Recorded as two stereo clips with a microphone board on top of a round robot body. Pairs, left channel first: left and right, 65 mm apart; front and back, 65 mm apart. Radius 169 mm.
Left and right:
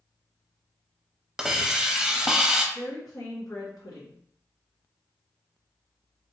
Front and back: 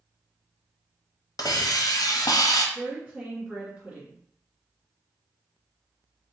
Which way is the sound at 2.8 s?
100° left.